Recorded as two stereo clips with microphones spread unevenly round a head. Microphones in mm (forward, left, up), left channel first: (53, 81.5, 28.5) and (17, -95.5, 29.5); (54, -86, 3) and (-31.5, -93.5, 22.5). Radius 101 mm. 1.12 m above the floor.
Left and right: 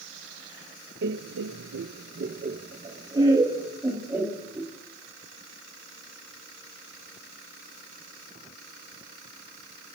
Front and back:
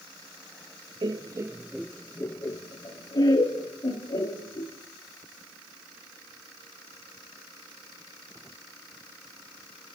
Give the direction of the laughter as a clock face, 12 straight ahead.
4 o'clock.